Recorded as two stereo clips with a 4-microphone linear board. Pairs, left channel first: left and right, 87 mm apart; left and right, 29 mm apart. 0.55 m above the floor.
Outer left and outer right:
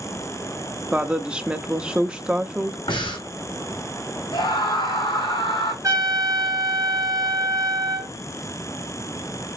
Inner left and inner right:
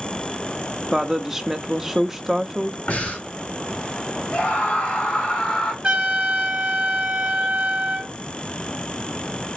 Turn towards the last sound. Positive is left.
turn(degrees=-40)  # may be behind; listen again after turning